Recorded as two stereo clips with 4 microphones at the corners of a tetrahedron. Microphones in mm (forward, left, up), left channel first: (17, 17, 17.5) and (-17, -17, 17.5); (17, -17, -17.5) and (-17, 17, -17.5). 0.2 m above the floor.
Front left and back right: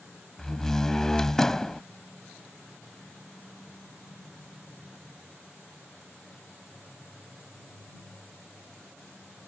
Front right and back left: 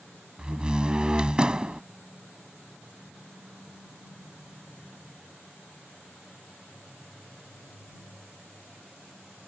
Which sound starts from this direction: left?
A door slam, at 0.4 s.